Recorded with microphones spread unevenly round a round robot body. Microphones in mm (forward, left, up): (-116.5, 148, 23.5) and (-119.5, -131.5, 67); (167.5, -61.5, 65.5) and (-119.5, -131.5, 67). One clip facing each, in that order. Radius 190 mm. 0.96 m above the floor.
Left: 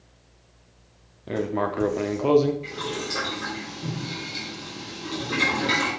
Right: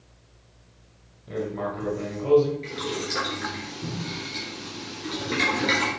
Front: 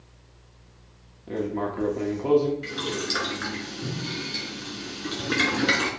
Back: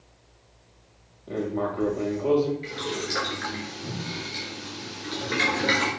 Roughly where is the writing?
Left.